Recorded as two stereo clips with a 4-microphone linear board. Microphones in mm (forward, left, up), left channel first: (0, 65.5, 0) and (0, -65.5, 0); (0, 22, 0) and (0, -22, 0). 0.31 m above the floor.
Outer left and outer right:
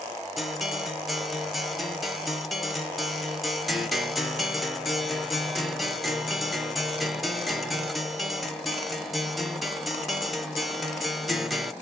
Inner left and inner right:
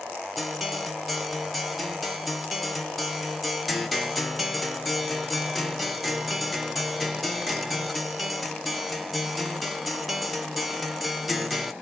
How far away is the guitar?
About 0.7 m.